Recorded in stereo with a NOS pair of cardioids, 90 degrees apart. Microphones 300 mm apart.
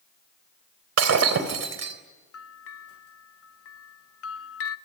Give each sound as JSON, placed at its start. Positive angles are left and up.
{"t": 1.0, "sound": "breaking glass", "azimuth_deg": -55, "distance_m": 3.5}
{"t": 2.3, "sound": "a bell", "azimuth_deg": 50, "distance_m": 1.2}